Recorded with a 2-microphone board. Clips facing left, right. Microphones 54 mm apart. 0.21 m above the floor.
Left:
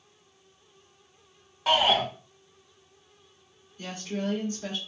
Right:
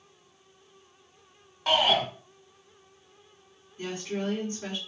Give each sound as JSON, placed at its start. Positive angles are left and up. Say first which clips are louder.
{"t": 1.7, "sound": "a shout", "louder": "left 1 dB", "side_deg": 0, "distance_m": 1.6}
{"t": 3.8, "sound": "a woman speaking", "louder": "right 1 dB", "side_deg": -45, "distance_m": 2.0}